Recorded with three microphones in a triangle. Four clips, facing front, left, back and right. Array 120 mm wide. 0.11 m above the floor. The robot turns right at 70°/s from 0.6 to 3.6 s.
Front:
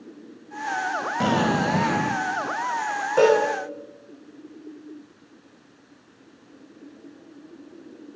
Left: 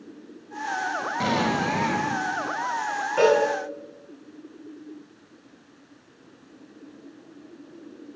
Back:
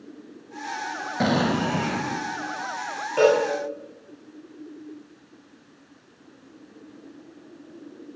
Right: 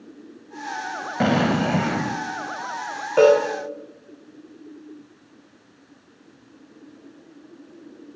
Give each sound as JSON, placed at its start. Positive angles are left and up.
{"t": 1.2, "sound": "an explosion", "azimuth_deg": -115, "distance_m": 1.7}
{"t": 3.2, "sound": "a cowbell", "azimuth_deg": -75, "distance_m": 9.0}